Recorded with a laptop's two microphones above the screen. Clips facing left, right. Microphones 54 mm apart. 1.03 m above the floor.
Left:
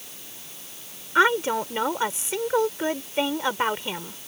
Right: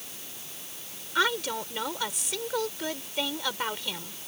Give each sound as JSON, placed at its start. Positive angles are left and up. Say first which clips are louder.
{"t": 1.1, "sound": "a woman speaking", "louder": "left 7 dB", "side_deg": 30}